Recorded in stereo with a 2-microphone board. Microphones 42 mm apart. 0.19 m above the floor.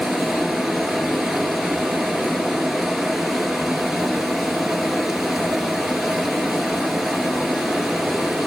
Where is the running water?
5° right (ahead or behind), 1.4 m.